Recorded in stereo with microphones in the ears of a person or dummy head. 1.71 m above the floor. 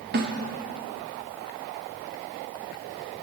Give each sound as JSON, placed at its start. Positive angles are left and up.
{"t": 0.1, "sound": "a snare drum", "side_deg": -50, "distance_m": 1.3}